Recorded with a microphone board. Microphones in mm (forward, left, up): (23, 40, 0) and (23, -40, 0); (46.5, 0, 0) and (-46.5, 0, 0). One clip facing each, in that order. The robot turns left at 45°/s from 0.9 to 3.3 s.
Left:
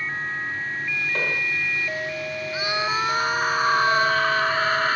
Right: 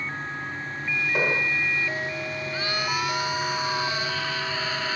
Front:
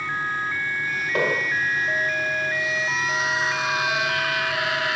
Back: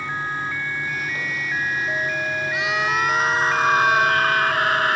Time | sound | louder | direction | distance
1.1 | an explosion | right 3 dB, front 4 dB | 10° right | ?
2.5 | a scream | left 4 dB, back 4 dB | 170° left | ?